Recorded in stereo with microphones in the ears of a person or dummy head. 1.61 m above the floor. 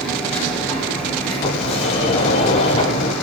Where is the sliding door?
40° left (ahead or behind), 3 m.